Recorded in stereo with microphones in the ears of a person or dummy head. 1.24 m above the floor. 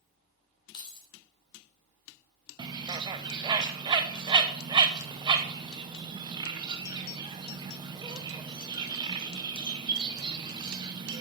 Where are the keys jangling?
25° left (ahead or behind), 2 m.